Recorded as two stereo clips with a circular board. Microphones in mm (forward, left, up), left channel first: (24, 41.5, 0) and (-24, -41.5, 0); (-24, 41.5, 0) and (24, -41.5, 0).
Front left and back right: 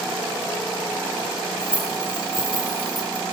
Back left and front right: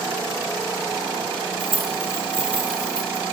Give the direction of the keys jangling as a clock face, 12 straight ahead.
1 o'clock.